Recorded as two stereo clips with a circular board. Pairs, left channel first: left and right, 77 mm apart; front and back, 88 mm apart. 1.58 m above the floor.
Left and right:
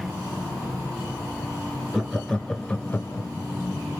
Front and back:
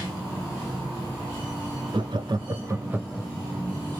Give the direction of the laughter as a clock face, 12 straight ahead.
6 o'clock.